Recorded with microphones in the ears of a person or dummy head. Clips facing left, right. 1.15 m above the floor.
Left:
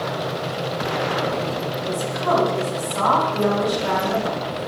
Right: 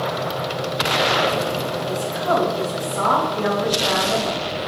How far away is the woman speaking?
About 3.5 m.